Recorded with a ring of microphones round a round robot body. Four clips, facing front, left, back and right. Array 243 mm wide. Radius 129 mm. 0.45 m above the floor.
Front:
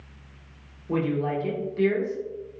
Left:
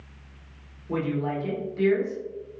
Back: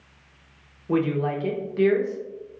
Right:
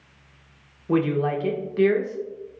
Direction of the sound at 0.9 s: 110° right.